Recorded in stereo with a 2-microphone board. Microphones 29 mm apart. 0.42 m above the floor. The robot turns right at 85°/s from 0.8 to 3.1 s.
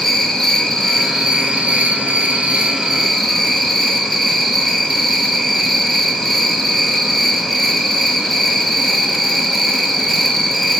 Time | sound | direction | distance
0.0 | an insect | 170° left | 1.0 m